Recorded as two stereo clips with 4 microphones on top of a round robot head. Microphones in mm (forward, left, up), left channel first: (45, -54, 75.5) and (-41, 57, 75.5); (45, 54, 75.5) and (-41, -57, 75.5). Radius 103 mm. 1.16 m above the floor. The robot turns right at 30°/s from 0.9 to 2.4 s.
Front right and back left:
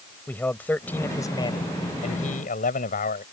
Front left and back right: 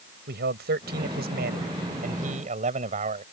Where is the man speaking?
130° right; by 3.2 s 85° right.